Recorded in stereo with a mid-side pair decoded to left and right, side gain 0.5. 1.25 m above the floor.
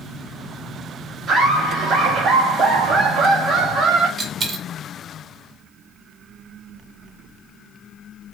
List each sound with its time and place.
1.3 s laughter: 55° right, 1.7 m
4.2 s a dropped coin: 40° right, 1.7 m